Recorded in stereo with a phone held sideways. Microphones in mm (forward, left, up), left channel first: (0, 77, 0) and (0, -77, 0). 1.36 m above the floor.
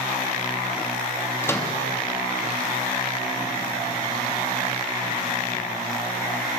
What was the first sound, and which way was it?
A microwave, 15° left (ahead or behind).